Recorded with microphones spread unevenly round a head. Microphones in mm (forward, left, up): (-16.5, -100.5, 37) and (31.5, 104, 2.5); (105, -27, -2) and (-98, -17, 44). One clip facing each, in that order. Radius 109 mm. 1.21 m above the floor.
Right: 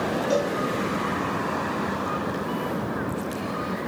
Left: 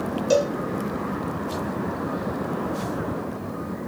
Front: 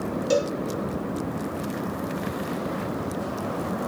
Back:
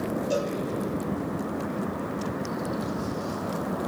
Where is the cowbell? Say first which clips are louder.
Left 5 dB, front 7 dB; 20° left, 3 m.